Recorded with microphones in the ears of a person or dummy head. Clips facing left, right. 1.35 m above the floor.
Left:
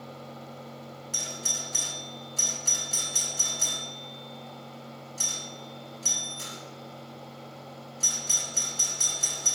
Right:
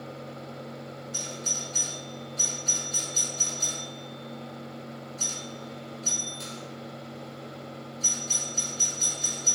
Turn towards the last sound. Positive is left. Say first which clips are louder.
# right 1 dB
turn(degrees=55)  # may be behind; listen again after turning